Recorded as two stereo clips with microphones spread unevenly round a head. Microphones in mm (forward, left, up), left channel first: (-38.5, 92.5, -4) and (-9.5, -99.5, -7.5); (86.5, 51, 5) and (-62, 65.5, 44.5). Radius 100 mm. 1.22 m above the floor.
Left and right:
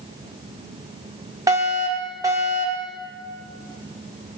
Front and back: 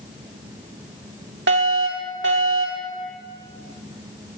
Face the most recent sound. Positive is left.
turn(degrees=-155)